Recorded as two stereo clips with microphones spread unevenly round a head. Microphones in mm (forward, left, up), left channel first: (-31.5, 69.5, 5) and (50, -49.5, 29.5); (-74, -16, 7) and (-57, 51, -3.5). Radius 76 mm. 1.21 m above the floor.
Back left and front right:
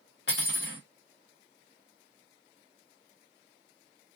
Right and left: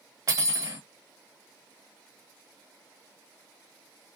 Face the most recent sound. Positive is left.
turn(degrees=110)